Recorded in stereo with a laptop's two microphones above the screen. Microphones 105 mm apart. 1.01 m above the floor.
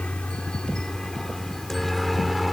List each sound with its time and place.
0.0 s a helicopter: 10° left (ahead or behind); by 2.5 s centre (ahead or behind)